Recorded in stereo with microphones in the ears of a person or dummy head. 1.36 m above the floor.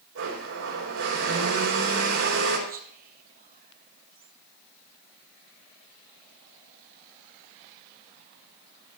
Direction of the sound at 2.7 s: 45° right (ahead or behind).